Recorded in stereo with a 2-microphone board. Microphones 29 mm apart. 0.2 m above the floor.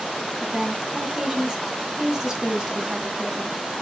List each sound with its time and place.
0.4 s a woman speaking: 25° right (ahead or behind), 1.1 m